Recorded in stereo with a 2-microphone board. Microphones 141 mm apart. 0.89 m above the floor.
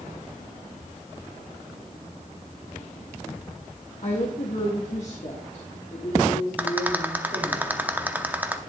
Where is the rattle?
10° right (ahead or behind), 0.7 m.